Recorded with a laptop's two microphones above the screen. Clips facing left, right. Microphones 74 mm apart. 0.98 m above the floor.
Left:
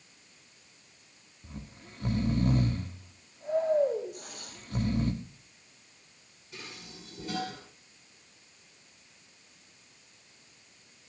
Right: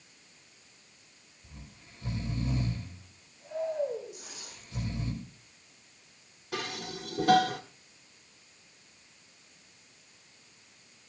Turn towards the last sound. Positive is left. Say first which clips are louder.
# right 10 dB
turn(degrees=-80)